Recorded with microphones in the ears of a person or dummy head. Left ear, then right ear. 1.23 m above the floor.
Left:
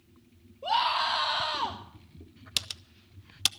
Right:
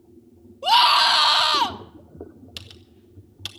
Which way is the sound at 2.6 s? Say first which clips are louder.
Left 9 dB; 30° left (ahead or behind).